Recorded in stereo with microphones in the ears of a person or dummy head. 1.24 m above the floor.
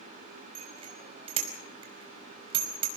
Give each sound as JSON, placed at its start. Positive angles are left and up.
{"t": 0.6, "sound": "a bicycle bell", "side_deg": -30, "distance_m": 4.5}